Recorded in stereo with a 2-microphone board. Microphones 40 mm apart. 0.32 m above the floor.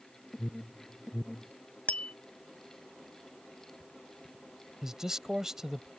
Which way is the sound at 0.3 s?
5° right (ahead or behind).